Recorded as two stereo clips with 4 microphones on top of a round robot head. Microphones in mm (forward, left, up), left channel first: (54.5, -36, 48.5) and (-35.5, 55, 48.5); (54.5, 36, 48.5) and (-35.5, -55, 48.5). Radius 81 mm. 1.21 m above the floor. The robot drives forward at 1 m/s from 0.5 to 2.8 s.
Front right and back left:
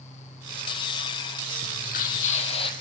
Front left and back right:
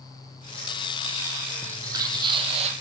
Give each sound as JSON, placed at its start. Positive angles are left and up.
{"t": 1.6, "sound": "footsteps", "azimuth_deg": -65, "distance_m": 3.0}